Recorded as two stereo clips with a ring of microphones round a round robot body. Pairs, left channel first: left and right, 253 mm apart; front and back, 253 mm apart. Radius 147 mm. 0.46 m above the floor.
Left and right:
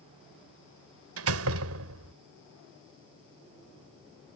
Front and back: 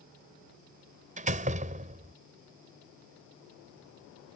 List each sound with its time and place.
1.2 s a door slam: 120° right